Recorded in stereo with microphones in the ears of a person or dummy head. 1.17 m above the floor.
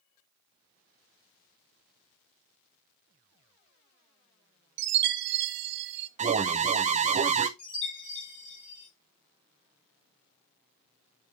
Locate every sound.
4.8 s a chime: 60° right (ahead or behind), 0.6 m
6.2 s an alarm: 30° right (ahead or behind), 0.5 m
7.6 s a chime: 25° left (ahead or behind), 5 m